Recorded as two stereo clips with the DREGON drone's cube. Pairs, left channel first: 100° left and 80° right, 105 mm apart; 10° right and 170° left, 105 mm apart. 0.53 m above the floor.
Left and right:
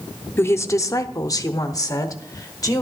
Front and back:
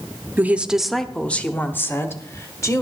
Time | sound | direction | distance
0.4 | a woman speaking | 125° left | 0.7 m